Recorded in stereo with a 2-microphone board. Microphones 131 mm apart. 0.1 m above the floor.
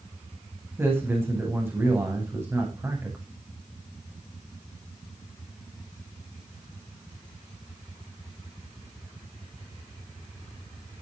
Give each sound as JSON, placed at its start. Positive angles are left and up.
{"t": 0.8, "sound": "a man speaking", "side_deg": -15, "distance_m": 9.5}